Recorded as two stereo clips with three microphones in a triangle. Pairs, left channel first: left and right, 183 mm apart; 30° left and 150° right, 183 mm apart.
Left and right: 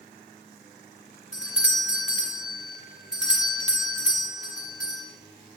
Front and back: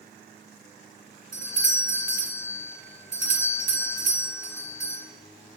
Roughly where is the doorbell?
Ahead.